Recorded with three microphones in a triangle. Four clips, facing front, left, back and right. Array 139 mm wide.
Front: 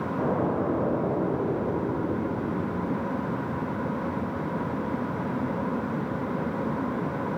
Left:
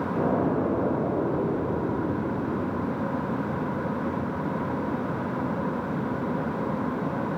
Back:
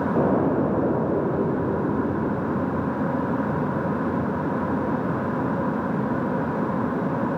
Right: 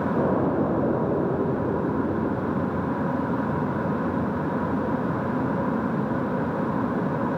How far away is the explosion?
About 5.5 m.